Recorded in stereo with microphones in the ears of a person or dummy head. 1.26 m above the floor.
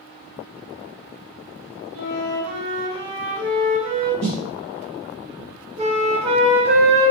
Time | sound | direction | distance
1.9 | a flute | 70° right (ahead or behind) | 1.3 m
4.2 | a snare drum | 55° right (ahead or behind) | 1.6 m
5.8 | a flute | 25° right (ahead or behind) | 0.7 m